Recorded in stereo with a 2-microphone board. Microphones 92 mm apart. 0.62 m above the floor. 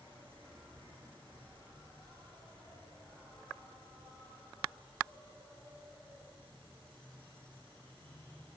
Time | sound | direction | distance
0.0 | an insect | 75° right (ahead or behind) | 7 m